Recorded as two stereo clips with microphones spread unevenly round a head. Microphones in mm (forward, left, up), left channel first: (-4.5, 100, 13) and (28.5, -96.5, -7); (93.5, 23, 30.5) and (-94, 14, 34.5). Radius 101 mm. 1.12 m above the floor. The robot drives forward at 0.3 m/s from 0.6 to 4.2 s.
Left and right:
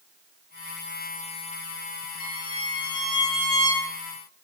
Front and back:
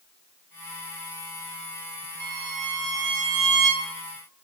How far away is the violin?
About 0.7 m.